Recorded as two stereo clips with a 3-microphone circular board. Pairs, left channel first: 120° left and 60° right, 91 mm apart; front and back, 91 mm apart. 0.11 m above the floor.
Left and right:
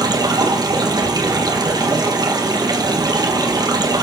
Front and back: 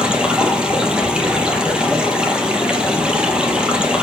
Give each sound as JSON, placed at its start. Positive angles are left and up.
{"t": 0.0, "sound": "running water", "azimuth_deg": -100, "distance_m": 2.5}